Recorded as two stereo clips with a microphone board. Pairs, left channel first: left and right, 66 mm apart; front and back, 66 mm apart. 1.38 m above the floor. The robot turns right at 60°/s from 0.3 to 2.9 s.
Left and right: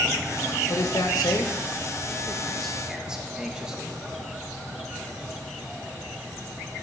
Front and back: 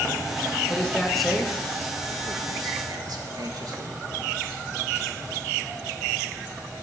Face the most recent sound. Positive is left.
turn(degrees=-170)